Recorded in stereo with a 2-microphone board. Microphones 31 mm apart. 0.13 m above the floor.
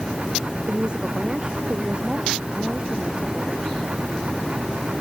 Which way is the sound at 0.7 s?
30° right (ahead or behind).